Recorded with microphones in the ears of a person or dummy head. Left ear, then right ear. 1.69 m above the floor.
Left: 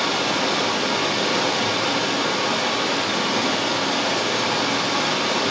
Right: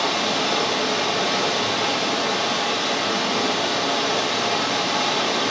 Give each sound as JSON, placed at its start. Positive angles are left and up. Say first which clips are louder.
{"t": 0.0, "sound": "running water", "louder": "even", "side_deg": -30, "distance_m": 2.0}